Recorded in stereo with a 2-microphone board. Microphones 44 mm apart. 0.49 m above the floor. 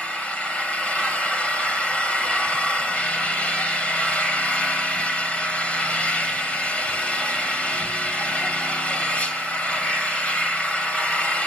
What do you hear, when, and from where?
0.0 s an engine running: 25° left (ahead or behind), 2.5 m